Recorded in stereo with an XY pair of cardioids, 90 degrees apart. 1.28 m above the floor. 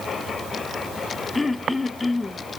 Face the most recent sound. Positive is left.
turn(degrees=25)